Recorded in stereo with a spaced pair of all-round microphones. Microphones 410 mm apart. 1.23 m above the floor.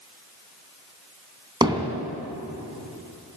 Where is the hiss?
I don't hear a hiss.